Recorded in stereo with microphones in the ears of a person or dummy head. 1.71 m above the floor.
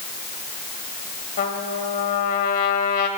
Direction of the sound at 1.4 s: 55° left (ahead or behind).